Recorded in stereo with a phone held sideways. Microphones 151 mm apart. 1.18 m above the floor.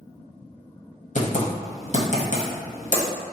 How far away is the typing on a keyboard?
About 0.8 m.